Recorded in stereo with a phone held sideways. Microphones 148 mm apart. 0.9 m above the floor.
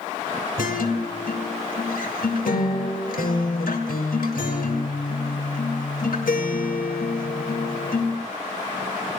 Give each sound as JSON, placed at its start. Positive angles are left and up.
{"t": 0.6, "sound": "a guitar", "side_deg": 75, "distance_m": 2.0}